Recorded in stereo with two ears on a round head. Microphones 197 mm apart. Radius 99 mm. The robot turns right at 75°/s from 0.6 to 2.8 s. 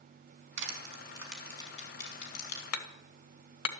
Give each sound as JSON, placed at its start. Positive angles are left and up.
{"t": 0.6, "sound": "crushing", "side_deg": -55, "distance_m": 4.5}
{"t": 2.7, "sound": "hammering", "side_deg": 75, "distance_m": 1.7}